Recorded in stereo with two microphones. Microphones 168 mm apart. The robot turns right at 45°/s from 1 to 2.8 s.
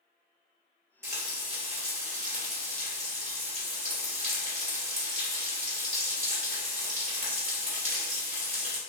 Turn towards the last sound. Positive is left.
turn(degrees=-80)